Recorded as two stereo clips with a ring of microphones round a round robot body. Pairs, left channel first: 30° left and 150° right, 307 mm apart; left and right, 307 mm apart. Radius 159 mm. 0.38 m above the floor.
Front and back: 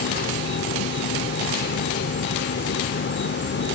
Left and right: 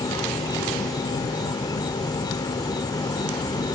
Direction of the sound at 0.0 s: 20° left.